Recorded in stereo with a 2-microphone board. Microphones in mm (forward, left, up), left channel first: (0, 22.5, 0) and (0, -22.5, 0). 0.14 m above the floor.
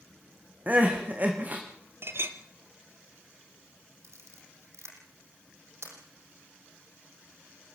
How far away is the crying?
About 3.5 m.